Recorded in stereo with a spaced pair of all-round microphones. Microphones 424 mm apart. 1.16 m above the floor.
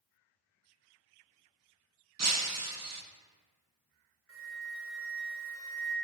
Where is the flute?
30° right (ahead or behind), 1.8 m.